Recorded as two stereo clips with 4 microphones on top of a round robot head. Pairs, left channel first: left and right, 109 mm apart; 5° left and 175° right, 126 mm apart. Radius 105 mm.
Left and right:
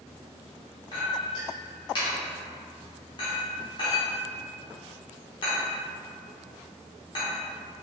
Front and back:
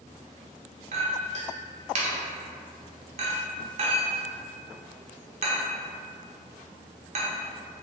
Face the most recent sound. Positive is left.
turn(degrees=150)